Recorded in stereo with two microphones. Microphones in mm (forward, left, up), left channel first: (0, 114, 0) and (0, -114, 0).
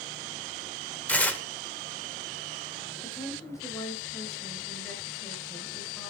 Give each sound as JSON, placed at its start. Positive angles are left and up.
{"t": 1.1, "sound": "tearing paper", "side_deg": 5, "distance_m": 2.0}
{"t": 3.0, "sound": "a woman speaking", "side_deg": 10, "distance_m": 7.0}